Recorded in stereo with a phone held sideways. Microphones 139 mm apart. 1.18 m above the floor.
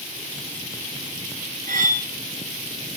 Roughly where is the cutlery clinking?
Right.